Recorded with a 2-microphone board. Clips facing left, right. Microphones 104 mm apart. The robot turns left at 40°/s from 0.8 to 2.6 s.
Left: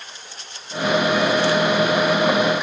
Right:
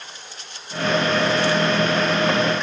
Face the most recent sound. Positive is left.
No sound to turn to.